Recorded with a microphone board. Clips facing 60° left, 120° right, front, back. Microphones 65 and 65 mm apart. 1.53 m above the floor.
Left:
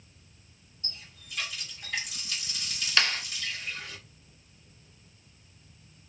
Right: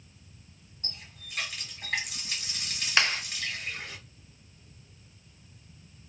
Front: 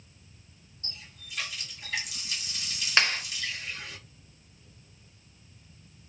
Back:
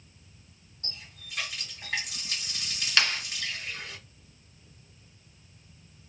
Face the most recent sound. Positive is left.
turn(degrees=-60)